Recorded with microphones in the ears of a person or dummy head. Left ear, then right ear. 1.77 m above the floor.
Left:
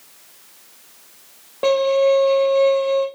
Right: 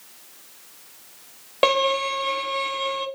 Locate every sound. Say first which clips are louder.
1.6 s a violin: left 4 dB; 25° right (ahead or behind), 0.6 m